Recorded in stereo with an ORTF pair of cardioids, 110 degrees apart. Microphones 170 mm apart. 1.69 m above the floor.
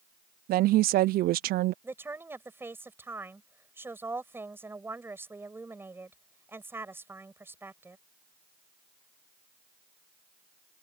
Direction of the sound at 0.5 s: 65° right.